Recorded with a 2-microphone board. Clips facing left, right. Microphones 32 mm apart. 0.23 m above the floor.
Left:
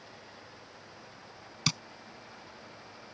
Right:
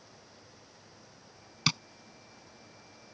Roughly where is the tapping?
Centre.